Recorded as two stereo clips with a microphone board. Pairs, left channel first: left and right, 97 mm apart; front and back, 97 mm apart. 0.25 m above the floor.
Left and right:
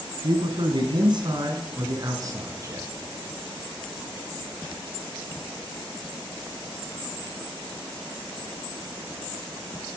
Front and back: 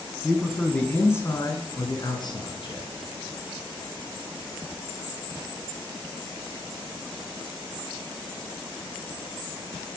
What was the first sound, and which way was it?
A man speaking, 95° right.